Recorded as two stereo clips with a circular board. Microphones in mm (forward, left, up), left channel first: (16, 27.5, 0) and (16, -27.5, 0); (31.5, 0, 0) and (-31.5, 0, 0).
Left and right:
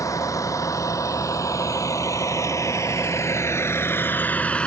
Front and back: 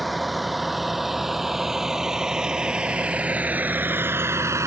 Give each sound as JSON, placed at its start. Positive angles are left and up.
{"t": 0.0, "sound": "a vehicle", "azimuth_deg": 90}